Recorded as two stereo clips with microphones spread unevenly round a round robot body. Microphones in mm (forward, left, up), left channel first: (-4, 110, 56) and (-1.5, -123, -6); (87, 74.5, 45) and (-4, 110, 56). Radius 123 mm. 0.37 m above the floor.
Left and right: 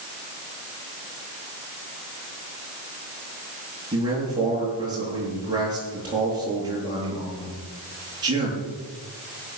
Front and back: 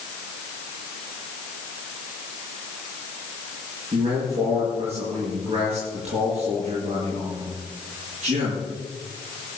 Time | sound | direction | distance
3.9 | a man speaking | 160° right | 8 m